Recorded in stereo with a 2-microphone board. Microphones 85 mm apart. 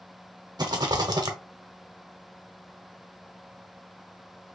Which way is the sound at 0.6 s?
55° right (ahead or behind).